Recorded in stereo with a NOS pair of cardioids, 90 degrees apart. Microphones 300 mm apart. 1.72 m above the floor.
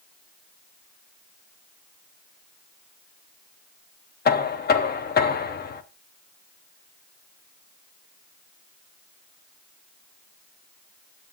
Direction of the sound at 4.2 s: 35° left.